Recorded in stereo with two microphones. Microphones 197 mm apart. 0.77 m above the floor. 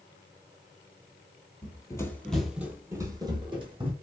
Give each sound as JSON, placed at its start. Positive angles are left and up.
{"t": 1.6, "sound": "running footsteps", "side_deg": 25, "distance_m": 0.8}